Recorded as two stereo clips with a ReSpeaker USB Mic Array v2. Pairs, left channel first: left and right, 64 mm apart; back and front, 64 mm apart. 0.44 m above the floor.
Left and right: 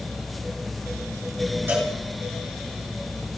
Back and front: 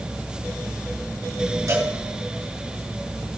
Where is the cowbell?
35° right, 5.5 m.